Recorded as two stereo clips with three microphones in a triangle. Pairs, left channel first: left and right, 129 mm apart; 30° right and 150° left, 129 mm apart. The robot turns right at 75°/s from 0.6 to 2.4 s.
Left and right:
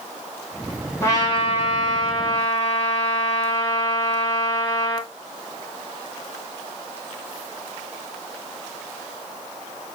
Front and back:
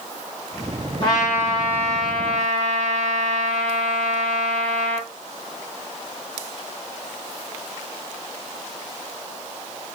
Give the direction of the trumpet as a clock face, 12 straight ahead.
11 o'clock.